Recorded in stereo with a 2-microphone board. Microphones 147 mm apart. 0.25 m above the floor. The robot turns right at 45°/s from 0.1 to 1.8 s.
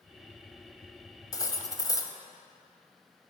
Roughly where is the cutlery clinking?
Left.